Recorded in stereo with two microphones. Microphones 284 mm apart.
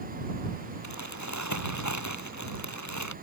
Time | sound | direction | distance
0.8 | crumpling | 75° left (ahead or behind) | ?